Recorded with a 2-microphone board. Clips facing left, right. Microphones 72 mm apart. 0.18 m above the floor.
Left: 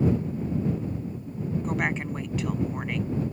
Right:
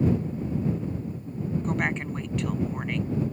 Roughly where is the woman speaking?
Centre.